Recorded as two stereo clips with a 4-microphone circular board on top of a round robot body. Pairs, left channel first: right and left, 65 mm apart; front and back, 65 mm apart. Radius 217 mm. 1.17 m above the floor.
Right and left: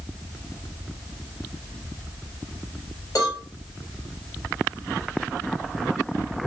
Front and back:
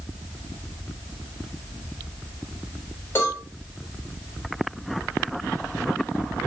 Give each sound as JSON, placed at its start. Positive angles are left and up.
{"t": 3.1, "sound": "a cowbell", "azimuth_deg": -55, "distance_m": 1.7}